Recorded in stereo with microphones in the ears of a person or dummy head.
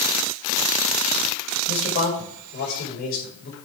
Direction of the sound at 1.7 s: 40° left (ahead or behind).